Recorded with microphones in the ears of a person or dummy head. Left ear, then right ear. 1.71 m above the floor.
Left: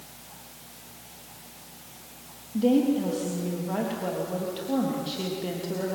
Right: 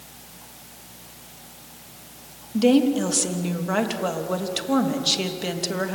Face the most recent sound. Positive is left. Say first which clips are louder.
# right 4 dB
turn(degrees=-55)  # may be behind; listen again after turning